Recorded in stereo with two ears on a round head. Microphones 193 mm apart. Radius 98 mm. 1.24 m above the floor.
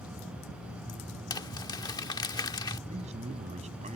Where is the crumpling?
20° left (ahead or behind).